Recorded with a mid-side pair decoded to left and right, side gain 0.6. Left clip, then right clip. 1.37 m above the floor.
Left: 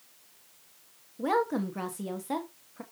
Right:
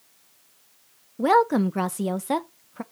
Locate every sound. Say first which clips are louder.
1.2 s a woman speaking: right 9 dB; 45° right, 1.1 m